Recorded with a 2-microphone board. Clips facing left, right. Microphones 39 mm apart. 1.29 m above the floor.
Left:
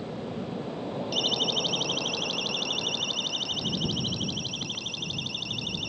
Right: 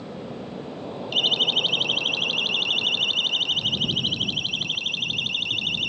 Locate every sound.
1.1 s a siren: 45° right (ahead or behind); by 5.9 s 55° right (ahead or behind)